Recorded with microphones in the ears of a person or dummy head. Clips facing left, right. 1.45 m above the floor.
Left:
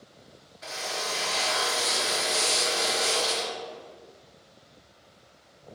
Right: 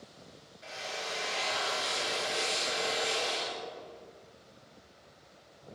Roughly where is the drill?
Left.